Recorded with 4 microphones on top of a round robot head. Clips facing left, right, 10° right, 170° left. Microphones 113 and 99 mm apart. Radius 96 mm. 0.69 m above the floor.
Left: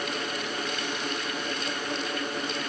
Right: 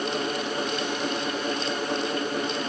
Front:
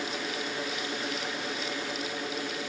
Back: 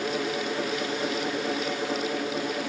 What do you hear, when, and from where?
Only background noise.